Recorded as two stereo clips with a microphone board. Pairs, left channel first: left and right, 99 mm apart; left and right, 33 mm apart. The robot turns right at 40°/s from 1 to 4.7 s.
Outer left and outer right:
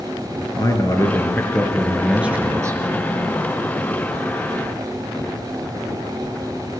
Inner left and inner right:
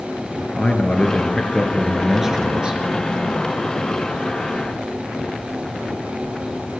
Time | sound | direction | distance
0.5 | a man speaking | 145° left | 4.5 m